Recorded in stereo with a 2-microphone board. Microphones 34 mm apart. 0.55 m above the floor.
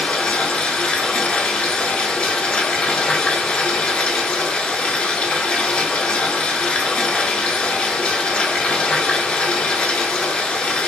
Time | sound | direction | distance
0.0 | running water | 35° left (ahead or behind) | 0.8 m